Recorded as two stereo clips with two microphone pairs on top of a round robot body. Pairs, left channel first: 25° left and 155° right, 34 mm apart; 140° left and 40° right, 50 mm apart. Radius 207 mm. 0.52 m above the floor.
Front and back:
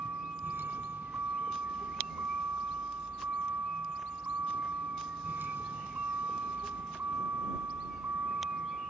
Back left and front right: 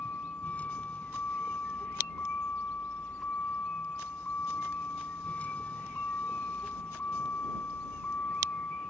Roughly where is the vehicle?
Behind.